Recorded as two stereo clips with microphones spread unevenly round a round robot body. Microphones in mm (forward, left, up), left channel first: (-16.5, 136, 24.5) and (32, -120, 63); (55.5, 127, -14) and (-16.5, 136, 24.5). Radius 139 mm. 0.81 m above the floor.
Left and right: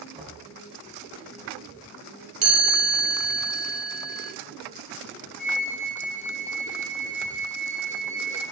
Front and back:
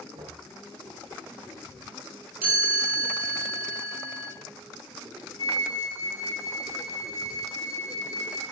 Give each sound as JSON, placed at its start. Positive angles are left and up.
{"t": 0.1, "sound": "knocking", "azimuth_deg": -145, "distance_m": 3.5}
{"t": 2.4, "sound": "a chime", "azimuth_deg": -145, "distance_m": 5.5}
{"t": 5.4, "sound": "a flute", "azimuth_deg": 15, "distance_m": 4.0}